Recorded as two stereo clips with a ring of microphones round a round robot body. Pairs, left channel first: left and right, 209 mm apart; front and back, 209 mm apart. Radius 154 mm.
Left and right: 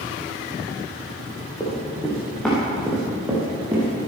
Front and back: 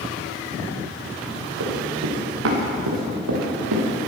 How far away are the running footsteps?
About 5 m.